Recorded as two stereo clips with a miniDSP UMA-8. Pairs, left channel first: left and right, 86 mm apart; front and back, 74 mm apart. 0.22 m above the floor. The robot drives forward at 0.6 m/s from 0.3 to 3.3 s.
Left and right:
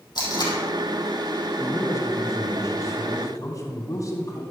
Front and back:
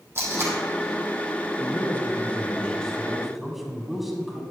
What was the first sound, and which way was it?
Tape being pulled, 125° left.